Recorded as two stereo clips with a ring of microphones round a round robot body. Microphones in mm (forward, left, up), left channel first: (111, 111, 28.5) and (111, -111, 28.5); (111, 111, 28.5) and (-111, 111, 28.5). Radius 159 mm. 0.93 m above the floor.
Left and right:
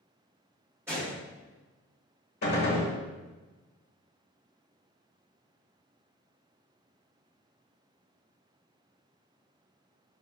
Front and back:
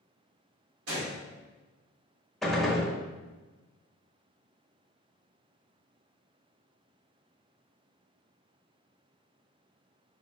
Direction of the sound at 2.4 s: 90° left.